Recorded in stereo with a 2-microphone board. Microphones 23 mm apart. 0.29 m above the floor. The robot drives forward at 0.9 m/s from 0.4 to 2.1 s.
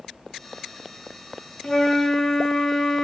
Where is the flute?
30° left (ahead or behind), 0.5 m; by 3.0 s 20° left (ahead or behind), 0.9 m.